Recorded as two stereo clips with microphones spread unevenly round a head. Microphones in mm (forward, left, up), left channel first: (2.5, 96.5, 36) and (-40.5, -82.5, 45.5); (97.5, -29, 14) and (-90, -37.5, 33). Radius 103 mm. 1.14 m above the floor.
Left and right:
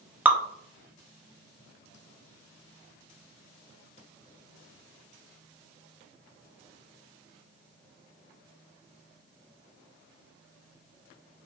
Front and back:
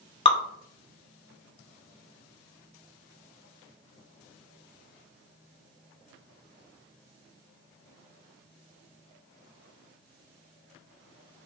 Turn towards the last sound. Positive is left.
turn(degrees=-25)